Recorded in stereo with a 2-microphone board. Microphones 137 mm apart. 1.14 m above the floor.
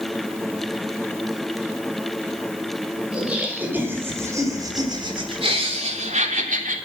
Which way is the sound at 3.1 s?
10° right (ahead or behind).